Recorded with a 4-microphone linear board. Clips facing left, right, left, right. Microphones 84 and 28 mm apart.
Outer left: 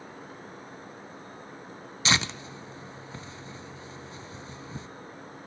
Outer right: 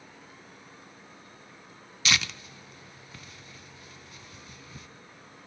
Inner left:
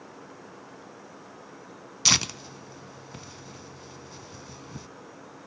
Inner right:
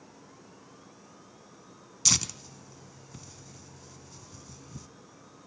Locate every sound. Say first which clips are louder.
2.0 s tearing paper: outer left 2 dB, inner left 5 dB; 30° left (ahead or behind), 0.5 m